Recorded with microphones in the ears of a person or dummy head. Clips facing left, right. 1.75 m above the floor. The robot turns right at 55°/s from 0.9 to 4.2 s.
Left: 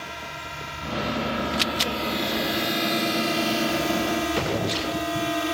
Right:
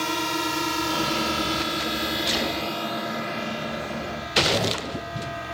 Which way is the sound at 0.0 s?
85° right.